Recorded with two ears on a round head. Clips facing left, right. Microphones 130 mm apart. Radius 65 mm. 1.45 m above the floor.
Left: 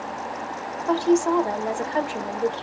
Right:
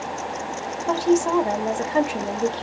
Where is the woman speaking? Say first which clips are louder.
Even; 15° right (ahead or behind), 1.0 m.